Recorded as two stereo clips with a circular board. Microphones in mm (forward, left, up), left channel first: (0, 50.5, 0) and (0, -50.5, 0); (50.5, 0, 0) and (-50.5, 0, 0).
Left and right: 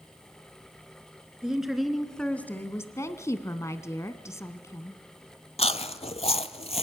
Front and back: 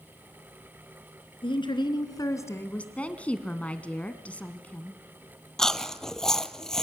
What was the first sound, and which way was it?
A woman speaking, 10° right.